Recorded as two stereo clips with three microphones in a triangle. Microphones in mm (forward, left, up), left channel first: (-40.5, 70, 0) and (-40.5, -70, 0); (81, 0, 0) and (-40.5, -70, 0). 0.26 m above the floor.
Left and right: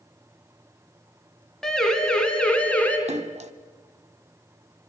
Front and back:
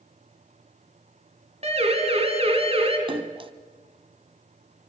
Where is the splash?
105° right, 1.0 m.